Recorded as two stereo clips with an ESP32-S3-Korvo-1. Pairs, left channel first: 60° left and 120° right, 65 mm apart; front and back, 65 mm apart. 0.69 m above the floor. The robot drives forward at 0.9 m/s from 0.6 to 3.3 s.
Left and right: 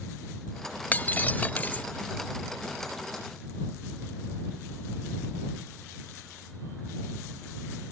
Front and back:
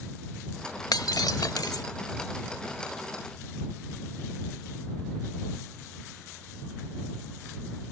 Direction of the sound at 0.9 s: Straight ahead.